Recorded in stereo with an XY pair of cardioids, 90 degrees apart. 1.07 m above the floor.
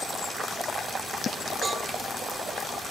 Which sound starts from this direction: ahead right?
A cowbell, at 1.6 s.